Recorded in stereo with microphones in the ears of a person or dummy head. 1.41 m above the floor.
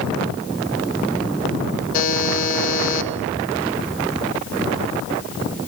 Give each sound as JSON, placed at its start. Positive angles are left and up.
{"t": 1.9, "sound": "a buzzer", "side_deg": 45, "distance_m": 1.4}